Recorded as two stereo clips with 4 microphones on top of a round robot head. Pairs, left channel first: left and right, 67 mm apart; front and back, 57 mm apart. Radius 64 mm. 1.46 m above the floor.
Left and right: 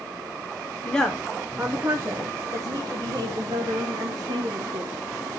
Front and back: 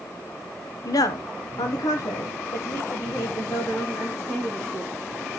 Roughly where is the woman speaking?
Ahead.